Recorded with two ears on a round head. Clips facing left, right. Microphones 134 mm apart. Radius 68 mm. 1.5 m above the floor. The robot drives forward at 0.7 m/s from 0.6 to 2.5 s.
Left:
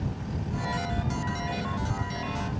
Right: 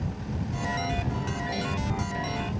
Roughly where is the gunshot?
No gunshot in this recording.